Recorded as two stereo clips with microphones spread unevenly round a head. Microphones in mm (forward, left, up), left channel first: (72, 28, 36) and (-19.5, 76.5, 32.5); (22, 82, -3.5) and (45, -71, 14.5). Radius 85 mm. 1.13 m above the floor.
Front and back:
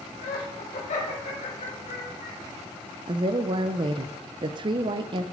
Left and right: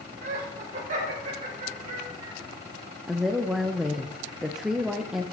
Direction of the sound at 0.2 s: 40° right.